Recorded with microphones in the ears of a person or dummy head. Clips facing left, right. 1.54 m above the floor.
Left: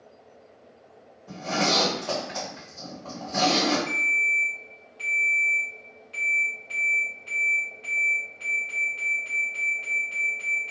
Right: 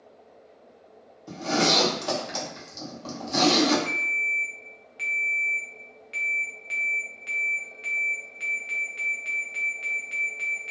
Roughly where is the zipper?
Right.